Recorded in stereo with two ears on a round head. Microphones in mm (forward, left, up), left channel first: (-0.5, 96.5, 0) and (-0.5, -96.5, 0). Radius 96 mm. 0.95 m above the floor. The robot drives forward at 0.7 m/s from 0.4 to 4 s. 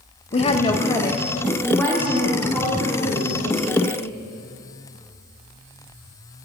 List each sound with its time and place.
0.3 s a woman speaking: 25° left (ahead or behind), 0.5 m; by 4.0 s 5° left (ahead or behind), 3 m